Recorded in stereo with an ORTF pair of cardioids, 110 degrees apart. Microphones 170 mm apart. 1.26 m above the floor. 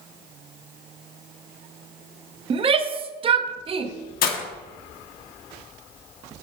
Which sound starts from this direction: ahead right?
A shout, at 2.5 s.